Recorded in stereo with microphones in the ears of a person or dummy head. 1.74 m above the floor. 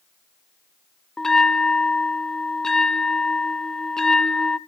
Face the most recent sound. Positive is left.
turn(degrees=10)  # may be behind; listen again after turning